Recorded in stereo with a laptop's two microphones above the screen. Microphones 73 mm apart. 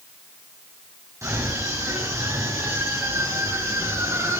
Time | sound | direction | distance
1.2 | a scream | 45° right (ahead or behind) | 9 m